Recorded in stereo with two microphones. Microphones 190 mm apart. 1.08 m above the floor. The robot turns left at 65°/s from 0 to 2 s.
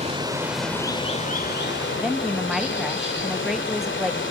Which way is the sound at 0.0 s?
140° right.